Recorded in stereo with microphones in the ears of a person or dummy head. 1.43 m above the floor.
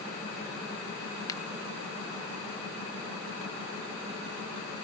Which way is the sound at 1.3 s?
20° left (ahead or behind).